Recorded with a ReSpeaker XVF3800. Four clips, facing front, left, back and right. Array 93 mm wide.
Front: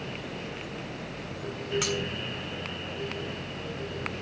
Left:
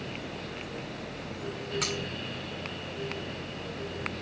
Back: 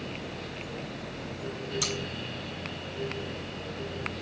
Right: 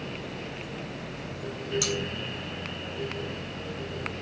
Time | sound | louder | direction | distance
1.8 | cutlery clinking | right 1 dB, front 3 dB | 40° left | 2 m